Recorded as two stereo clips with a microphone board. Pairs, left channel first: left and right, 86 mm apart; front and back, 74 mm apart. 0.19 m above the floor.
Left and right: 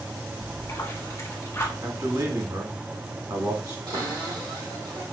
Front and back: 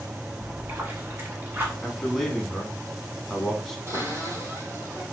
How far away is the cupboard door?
About 3 m.